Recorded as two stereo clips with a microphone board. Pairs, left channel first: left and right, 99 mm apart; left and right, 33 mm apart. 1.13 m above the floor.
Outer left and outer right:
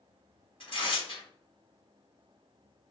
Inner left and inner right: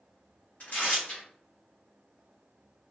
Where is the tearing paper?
60° left (ahead or behind), 1.6 m.